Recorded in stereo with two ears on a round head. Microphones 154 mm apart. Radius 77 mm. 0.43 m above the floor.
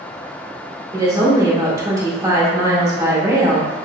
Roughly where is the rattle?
I don't hear a rattle.